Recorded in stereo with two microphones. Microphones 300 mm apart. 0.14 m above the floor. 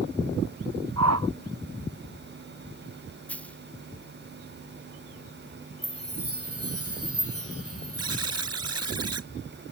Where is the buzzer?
55° right (ahead or behind).